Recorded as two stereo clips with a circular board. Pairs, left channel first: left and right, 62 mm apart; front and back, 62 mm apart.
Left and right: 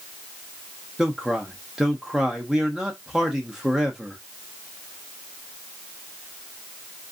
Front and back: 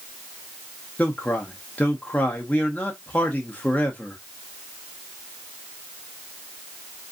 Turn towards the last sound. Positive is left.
turn(degrees=-20)